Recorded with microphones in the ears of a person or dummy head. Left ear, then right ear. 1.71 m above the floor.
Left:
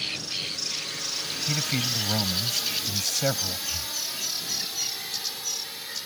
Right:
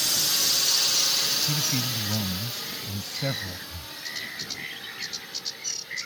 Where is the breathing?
20° left (ahead or behind).